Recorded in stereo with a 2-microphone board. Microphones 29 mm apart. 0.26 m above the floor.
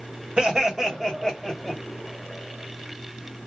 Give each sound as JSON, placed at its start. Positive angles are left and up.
{"t": 0.4, "sound": "laughter", "side_deg": -30, "distance_m": 1.6}